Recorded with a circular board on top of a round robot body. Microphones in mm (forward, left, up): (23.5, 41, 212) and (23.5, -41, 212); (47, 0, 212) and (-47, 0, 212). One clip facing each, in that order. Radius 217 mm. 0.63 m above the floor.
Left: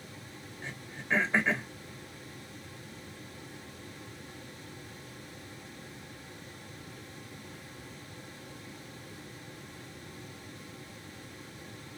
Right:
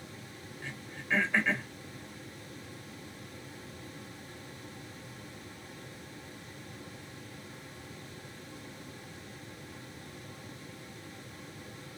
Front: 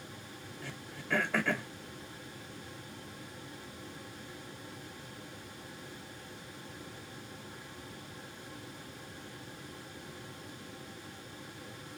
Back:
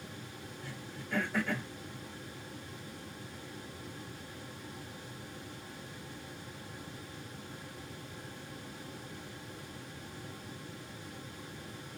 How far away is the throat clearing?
About 0.9 m.